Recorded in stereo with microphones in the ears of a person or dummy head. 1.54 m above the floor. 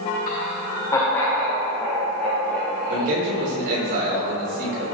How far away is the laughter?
About 0.8 m.